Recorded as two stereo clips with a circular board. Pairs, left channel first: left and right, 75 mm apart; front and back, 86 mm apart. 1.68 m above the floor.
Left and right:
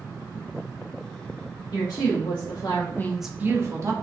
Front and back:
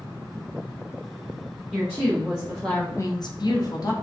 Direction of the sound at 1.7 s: 105° left.